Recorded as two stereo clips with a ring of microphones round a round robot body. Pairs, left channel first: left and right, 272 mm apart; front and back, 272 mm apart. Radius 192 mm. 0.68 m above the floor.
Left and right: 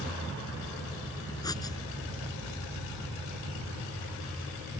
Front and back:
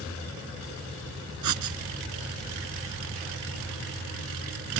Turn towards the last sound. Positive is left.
turn(degrees=170)